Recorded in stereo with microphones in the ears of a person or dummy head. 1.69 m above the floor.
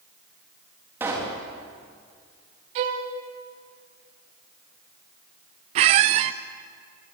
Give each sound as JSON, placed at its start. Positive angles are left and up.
{"t": 1.0, "sound": "a pop", "side_deg": -15, "distance_m": 3.5}
{"t": 2.8, "sound": "a violin", "side_deg": -35, "distance_m": 1.8}
{"t": 5.8, "sound": "a squeak", "side_deg": -40, "distance_m": 0.8}